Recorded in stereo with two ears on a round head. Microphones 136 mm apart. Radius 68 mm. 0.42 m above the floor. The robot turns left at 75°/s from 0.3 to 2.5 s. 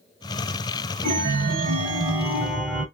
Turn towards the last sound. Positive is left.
turn(degrees=-175)